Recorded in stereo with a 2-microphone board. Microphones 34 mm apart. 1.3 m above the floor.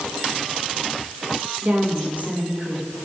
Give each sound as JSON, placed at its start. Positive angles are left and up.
{"t": 1.6, "sound": "a woman speaking", "side_deg": -50, "distance_m": 4.5}